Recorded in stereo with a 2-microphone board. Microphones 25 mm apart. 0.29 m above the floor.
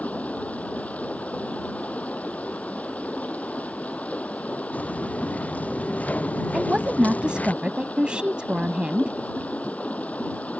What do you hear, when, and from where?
0.0 s running water: 70° left (ahead or behind)
4.7 s footsteps: 75° left (ahead or behind); by 7.5 s 85° left
6.5 s a woman speaking: 45° right (ahead or behind)